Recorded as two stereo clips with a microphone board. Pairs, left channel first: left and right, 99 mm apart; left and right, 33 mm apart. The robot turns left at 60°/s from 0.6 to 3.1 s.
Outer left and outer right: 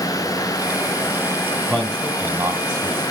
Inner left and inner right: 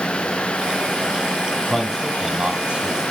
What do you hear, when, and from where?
1.7 s a man speaking: 10° left (ahead or behind), 1.8 m; by 3.0 s 40° right (ahead or behind), 1.8 m